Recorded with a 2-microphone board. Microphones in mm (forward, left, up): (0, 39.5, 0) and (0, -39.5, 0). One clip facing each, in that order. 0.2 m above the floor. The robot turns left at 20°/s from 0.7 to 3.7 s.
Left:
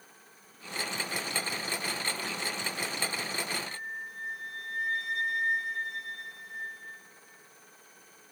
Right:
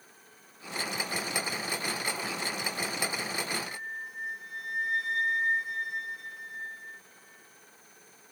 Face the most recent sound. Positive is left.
turn(degrees=-15)  # may be behind; listen again after turning